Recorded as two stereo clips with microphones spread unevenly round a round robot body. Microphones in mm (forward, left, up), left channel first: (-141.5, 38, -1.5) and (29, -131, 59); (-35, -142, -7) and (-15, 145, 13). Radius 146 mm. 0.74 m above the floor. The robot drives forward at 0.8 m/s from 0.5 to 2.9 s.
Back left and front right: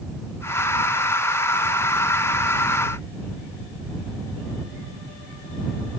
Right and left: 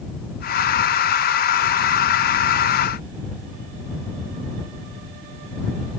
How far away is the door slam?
I don't hear a door slam.